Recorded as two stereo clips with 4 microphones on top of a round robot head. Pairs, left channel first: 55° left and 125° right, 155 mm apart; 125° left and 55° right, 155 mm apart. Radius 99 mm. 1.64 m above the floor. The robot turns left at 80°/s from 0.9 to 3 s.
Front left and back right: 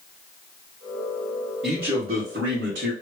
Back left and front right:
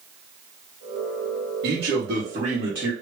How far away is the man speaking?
About 2 m.